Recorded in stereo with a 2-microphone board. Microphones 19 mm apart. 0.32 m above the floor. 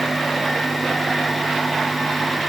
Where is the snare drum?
No snare drum in this recording.